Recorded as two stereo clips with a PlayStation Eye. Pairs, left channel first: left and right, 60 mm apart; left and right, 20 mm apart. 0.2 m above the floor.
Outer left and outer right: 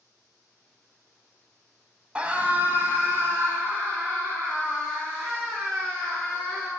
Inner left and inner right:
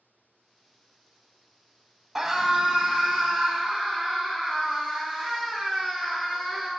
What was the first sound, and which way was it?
A scream, 20° right (ahead or behind).